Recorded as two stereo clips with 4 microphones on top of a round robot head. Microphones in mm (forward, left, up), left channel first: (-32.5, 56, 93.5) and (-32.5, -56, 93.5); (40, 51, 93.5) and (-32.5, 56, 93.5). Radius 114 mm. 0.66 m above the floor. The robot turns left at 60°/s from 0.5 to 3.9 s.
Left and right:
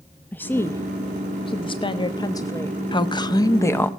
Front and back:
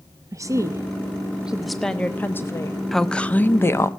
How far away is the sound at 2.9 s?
About 1.1 m.